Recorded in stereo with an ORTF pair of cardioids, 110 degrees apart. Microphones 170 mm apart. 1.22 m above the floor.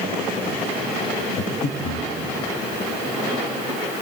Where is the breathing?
65° left, 1.3 m.